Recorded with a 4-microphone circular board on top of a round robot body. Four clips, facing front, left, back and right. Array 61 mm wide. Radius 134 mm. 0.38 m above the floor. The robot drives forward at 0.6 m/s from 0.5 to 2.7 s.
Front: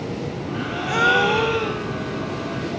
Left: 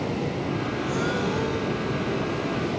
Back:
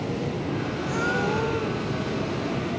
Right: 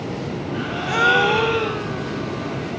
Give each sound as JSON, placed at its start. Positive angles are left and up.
{"t": 0.5, "sound": "a gasp", "azimuth_deg": -45}